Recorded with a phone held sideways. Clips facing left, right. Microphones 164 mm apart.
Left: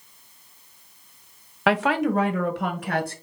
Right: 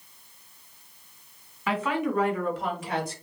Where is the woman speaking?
75° left (ahead or behind), 0.8 m; by 3.1 s 60° left (ahead or behind), 2 m.